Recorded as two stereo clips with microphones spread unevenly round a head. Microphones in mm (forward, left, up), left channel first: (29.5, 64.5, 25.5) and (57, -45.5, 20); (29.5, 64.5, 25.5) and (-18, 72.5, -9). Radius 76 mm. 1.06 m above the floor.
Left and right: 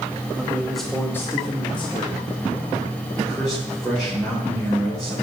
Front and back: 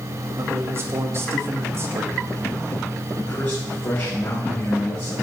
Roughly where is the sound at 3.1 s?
Ahead.